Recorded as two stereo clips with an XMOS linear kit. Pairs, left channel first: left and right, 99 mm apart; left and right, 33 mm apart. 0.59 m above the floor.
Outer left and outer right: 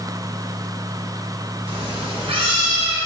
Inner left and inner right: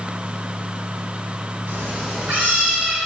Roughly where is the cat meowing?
Right.